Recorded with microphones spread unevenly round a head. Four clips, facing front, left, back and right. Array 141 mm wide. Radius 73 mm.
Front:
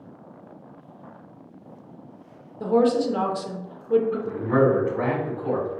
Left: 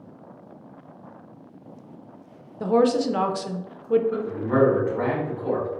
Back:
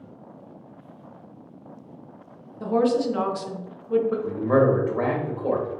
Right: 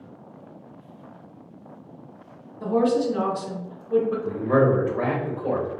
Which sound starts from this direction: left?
A woman speaking, at 2.6 s.